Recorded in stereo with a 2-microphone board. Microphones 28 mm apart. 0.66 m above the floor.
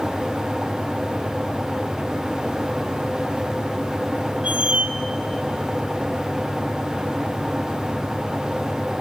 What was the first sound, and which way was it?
A squeak, 50° right (ahead or behind).